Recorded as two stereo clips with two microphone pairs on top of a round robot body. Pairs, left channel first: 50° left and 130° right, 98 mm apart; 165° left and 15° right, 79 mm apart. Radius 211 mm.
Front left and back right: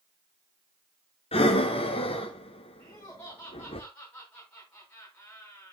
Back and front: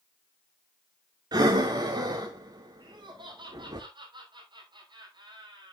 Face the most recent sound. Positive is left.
turn(degrees=-25)